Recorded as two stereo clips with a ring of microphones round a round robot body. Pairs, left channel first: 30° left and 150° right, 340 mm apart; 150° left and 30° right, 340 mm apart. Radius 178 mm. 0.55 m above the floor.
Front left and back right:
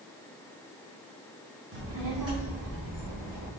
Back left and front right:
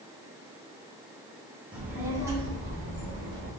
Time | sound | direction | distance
1.7 | a child speaking | 115° right | 0.9 m